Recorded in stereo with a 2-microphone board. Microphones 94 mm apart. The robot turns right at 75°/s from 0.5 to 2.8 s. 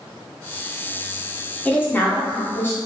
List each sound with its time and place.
1.6 s a woman speaking: 15° left (ahead or behind), 0.7 m; by 2.8 s 25° left (ahead or behind), 0.7 m